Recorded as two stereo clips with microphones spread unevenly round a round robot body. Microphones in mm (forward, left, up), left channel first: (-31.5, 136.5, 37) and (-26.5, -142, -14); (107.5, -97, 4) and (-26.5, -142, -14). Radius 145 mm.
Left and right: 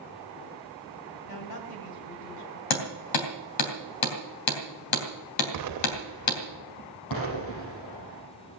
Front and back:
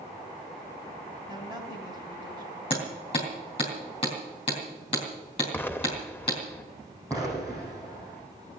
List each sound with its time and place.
1.3 s a woman speaking: 115° left, 3.5 m
2.7 s hammering: 90° left, 3 m
5.5 s an explosion: 60° right, 0.9 m
7.1 s an explosion: 100° left, 5.5 m